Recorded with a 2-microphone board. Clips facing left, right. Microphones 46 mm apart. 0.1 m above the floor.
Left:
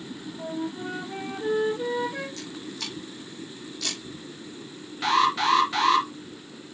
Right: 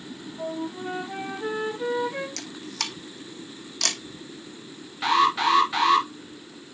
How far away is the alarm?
About 2 m.